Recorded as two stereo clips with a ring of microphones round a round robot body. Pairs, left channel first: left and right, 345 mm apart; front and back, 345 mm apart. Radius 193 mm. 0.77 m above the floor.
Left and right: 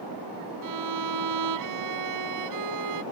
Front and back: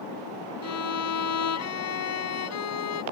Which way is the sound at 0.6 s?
45° right.